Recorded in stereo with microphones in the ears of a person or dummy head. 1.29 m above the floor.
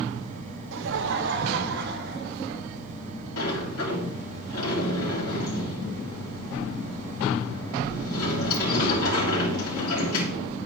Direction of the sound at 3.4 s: 85° left.